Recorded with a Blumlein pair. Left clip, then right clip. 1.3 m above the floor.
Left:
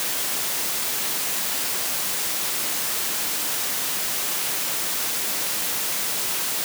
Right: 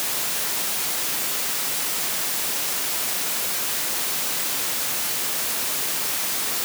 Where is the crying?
No crying in this recording.